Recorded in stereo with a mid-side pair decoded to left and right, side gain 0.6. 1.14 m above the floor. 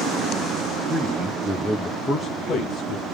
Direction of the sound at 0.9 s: 20° right.